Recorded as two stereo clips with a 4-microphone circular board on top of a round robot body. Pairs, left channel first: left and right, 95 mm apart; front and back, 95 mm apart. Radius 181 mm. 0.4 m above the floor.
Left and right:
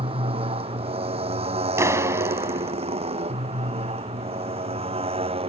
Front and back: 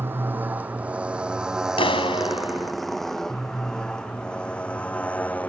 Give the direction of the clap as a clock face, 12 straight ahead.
1 o'clock.